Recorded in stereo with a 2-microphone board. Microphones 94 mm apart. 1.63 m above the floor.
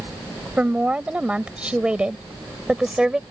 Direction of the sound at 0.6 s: 15° right (ahead or behind).